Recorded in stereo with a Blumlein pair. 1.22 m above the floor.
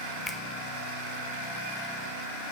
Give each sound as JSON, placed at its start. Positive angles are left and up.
{"t": 0.3, "sound": "a finger snap", "azimuth_deg": 10, "distance_m": 1.2}